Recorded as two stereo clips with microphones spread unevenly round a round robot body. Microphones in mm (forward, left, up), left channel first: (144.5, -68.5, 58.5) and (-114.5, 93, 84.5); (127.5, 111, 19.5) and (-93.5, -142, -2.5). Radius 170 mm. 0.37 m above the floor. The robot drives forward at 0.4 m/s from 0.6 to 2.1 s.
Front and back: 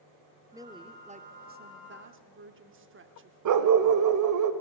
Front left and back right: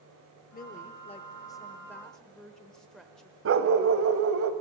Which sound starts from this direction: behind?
A dog barking, at 3.5 s.